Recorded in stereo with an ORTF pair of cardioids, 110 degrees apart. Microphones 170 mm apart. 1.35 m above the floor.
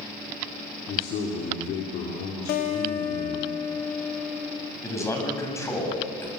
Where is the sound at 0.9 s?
70° left, 4 m.